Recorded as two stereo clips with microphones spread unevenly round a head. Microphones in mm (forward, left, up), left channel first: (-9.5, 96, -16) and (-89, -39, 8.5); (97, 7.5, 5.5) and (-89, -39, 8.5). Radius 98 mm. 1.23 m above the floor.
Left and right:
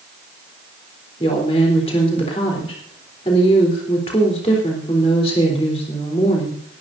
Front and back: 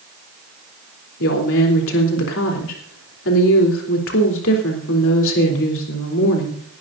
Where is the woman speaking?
5° right, 3.5 m.